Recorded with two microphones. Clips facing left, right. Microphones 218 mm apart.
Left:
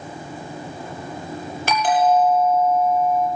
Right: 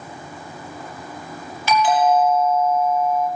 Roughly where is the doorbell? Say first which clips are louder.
Right 1 dB; left.